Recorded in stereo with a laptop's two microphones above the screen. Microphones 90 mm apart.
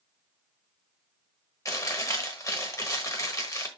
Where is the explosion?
No explosion in this recording.